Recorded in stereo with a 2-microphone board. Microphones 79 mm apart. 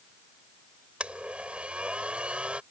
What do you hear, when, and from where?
1.0 s a blender: 15° right (ahead or behind)